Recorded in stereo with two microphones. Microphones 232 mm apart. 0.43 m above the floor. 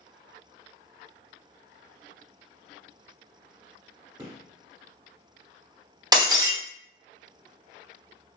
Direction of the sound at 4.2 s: 20° right (ahead or behind).